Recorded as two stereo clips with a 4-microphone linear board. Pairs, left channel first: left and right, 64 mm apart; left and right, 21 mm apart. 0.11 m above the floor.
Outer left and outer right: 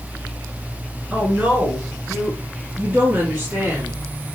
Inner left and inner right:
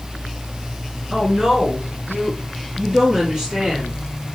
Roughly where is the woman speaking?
Centre.